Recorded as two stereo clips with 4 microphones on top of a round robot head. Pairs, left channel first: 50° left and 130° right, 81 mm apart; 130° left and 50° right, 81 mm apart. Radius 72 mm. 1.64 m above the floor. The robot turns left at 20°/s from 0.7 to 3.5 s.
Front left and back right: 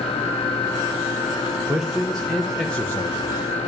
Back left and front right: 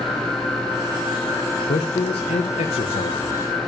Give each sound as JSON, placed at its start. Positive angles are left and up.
{"t": 1.7, "sound": "a man speaking", "azimuth_deg": 145, "distance_m": 1.3}